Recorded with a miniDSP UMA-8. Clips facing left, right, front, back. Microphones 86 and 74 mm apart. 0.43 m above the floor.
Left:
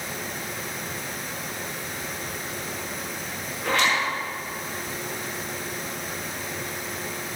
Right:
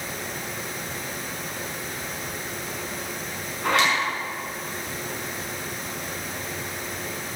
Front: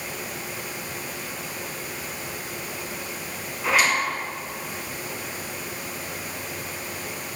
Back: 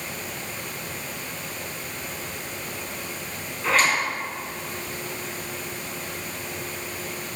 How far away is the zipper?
About 5 m.